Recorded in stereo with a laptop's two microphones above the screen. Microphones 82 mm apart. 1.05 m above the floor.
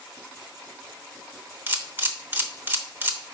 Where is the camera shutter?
25° right (ahead or behind), 0.9 m.